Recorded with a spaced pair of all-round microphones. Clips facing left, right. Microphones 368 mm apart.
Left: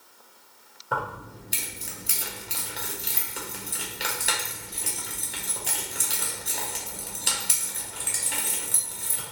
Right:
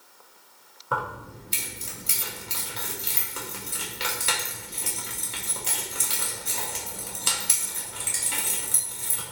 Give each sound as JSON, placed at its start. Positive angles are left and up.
{"t": 0.9, "sound": "keys jangling", "side_deg": -10, "distance_m": 0.5}